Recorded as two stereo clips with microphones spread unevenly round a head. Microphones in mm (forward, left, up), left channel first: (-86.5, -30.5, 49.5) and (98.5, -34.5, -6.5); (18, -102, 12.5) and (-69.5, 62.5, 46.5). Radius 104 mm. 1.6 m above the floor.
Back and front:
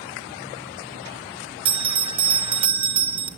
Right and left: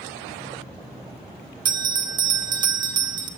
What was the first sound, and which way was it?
A bell, 75° left.